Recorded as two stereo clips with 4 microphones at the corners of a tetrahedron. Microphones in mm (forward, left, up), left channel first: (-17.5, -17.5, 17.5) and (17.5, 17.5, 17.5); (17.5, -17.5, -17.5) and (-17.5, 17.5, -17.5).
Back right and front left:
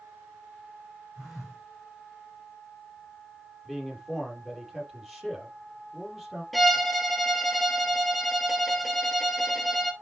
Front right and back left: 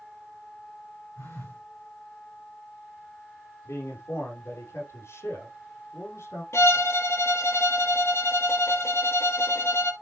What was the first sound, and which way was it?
A phone buzzing, 45° right.